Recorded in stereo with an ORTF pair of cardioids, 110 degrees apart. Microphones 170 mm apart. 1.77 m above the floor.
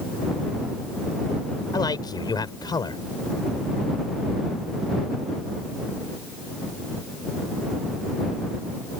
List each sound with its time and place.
1.7 s a man speaking: 25° left